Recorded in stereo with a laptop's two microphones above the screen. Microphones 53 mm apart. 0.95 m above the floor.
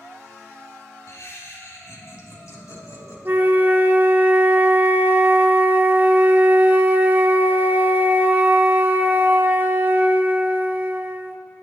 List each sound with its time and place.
1.1 s laughter: 65° left (ahead or behind), 3 m
3.2 s a flute: 35° right (ahead or behind), 0.6 m